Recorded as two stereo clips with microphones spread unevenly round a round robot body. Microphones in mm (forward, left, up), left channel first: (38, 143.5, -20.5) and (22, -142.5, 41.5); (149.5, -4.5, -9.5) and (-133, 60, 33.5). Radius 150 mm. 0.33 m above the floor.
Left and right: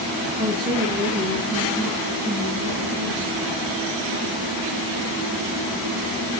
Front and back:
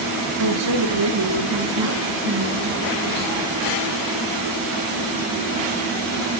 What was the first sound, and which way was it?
A woman speaking, 175° right.